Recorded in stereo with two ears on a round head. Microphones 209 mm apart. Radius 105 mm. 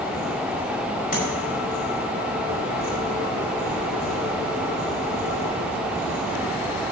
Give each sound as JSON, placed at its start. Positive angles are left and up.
{"t": 1.1, "sound": "tapping", "side_deg": 40, "distance_m": 5.5}